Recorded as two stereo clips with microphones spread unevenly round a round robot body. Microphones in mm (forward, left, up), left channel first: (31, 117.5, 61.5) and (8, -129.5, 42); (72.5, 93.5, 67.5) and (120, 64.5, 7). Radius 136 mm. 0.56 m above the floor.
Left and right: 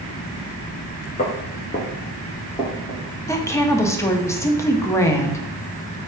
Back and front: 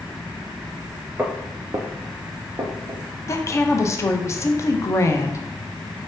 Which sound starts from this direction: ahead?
A woman speaking, at 3.3 s.